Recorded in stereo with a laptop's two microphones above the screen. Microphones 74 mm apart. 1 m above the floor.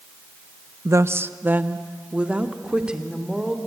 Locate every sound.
0.8 s a woman speaking: 45° right (ahead or behind), 0.8 m; by 3.6 s 10° right (ahead or behind), 3 m